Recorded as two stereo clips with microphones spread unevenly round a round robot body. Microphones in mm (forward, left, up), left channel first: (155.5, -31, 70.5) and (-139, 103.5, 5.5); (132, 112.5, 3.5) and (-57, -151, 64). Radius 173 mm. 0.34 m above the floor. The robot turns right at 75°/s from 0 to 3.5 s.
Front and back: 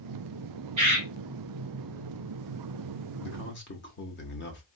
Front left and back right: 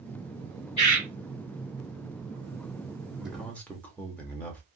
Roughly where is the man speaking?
Ahead.